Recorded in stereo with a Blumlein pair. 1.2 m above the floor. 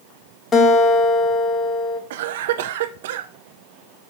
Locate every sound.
0.5 s a guitar: 20° left, 1.1 m
2.1 s a cough: 55° right, 0.6 m